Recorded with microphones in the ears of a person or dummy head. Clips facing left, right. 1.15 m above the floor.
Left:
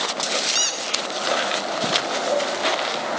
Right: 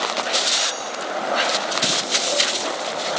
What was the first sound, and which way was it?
A squeak, 35° left (ahead or behind).